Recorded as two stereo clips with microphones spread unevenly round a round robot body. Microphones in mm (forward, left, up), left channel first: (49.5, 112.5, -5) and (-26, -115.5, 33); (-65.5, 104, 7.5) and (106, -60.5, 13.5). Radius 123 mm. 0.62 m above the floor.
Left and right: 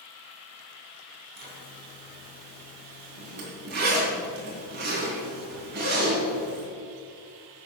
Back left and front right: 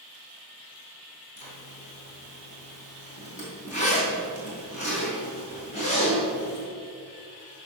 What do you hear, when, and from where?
1.4 s a zipper: 160° right, 3.5 m